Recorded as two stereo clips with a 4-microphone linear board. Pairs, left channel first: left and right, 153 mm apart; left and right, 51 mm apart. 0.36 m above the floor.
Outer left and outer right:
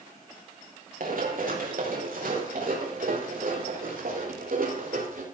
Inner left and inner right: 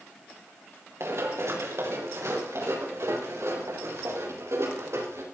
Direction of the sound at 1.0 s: 70° right (ahead or behind).